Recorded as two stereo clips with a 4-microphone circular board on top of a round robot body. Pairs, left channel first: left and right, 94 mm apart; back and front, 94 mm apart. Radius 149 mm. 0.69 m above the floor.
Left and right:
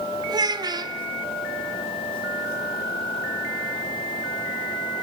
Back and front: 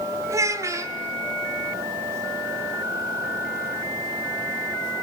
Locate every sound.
0.3 s a child speaking: 55° right, 1.2 m